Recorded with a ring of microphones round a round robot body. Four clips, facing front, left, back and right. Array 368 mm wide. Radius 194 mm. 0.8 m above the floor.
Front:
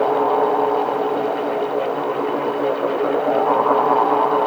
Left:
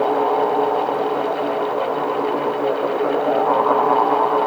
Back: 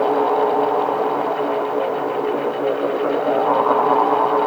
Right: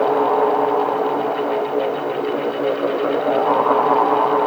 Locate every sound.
Only background noise.